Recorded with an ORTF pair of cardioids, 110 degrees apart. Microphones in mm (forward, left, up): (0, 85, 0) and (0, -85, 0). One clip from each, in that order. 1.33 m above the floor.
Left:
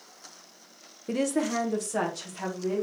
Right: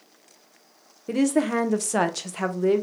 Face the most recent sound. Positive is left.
turn(degrees=-65)